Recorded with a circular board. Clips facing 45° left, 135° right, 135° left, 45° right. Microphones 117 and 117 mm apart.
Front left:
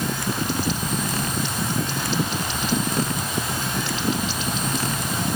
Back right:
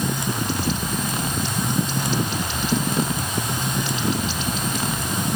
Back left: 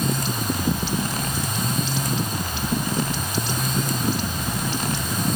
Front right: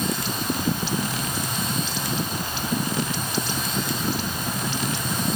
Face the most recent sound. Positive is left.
No sound to turn to.